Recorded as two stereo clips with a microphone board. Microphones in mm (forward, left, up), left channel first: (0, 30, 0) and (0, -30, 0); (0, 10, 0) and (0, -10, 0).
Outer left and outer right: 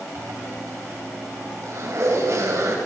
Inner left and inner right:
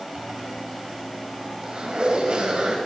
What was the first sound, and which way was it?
A zipper, 55° right (ahead or behind).